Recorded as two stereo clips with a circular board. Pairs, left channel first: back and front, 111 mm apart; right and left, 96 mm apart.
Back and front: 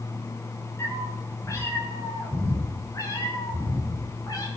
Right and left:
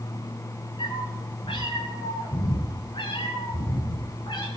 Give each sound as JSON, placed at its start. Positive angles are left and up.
{"t": 0.8, "sound": "a cat meowing", "azimuth_deg": -115, "distance_m": 8.5}